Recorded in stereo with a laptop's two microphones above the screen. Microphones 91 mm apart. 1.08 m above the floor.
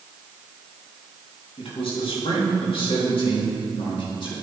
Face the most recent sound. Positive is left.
turn(degrees=65)  # may be behind; listen again after turning